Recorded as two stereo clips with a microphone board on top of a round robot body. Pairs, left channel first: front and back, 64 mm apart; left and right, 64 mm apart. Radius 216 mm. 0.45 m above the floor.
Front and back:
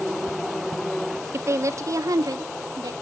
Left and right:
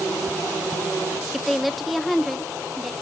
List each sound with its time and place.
1.3 s a woman speaking: straight behind, 0.9 m; by 2.9 s 175° left, 1.6 m